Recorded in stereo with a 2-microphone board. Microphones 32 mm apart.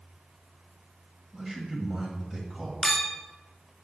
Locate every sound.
1.3 s a man speaking: 15° right (ahead or behind), 1.3 m
2.8 s a clink: 15° left (ahead or behind), 0.5 m